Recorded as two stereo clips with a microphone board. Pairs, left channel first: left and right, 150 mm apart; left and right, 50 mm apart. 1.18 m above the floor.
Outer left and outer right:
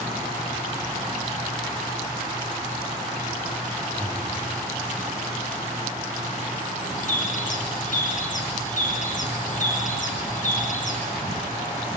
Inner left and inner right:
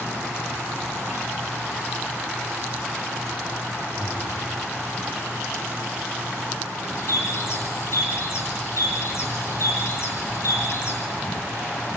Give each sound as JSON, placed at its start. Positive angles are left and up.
{"t": 4.0, "sound": "breathing", "side_deg": 5, "distance_m": 2.0}
{"t": 7.0, "sound": "a bird", "side_deg": 55, "distance_m": 4.0}